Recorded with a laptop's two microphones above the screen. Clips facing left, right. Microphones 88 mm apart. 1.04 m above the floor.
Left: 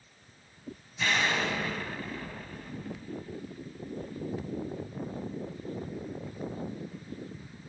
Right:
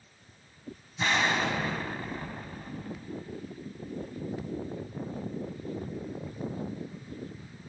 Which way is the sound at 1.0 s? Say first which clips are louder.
Right 2 dB; 30° right (ahead or behind).